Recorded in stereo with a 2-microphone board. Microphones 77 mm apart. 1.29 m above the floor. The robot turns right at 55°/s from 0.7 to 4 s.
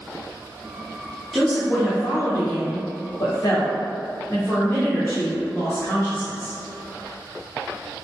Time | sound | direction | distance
1.3 | a woman speaking | straight ahead | 0.6 m